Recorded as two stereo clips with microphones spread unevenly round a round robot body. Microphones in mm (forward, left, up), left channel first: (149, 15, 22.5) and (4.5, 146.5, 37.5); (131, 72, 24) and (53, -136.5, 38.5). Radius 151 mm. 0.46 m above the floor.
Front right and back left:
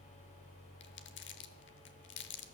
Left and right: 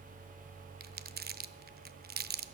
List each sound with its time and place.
0.8 s crumpling: 60° right, 0.7 m